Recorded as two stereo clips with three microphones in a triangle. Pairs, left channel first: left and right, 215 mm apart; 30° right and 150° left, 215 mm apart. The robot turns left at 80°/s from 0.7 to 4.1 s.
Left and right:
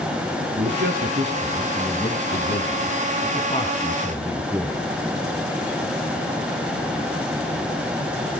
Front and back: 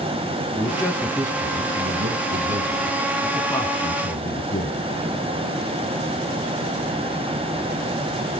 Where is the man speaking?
95° right, 2.5 m; by 4.8 s 5° right, 2.5 m.